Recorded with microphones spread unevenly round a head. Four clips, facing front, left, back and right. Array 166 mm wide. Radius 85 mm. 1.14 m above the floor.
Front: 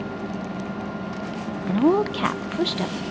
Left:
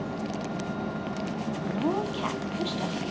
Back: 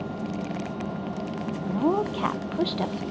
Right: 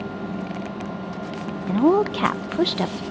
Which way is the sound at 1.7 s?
45° right.